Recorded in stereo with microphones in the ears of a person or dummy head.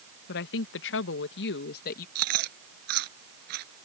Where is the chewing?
60° right (ahead or behind).